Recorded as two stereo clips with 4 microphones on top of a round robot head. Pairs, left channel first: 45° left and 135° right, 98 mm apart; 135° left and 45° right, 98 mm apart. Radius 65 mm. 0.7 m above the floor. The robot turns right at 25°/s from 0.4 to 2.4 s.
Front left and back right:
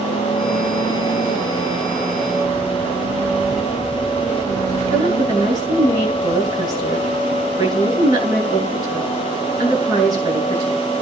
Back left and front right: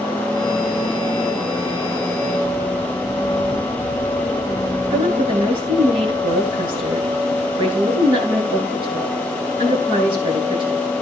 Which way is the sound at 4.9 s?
85° right.